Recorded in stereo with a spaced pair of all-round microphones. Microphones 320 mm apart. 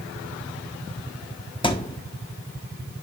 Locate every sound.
1.6 s a thud: 15° left (ahead or behind), 1.2 m